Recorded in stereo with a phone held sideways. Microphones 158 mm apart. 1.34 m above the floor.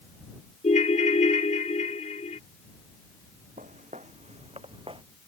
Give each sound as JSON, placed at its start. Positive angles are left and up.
{"t": 0.6, "sound": "a ringtone", "side_deg": 50}
{"t": 3.6, "sound": "footsteps", "side_deg": -55}